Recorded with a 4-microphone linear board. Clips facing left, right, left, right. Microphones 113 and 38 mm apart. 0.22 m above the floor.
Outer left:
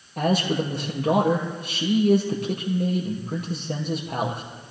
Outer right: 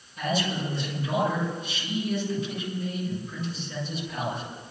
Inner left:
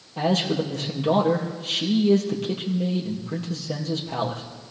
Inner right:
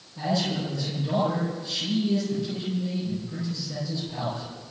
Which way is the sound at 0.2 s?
70° left (ahead or behind).